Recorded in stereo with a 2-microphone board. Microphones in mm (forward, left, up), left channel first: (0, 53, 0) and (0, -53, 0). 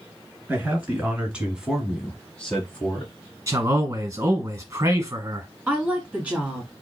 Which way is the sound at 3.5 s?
30° right (ahead or behind).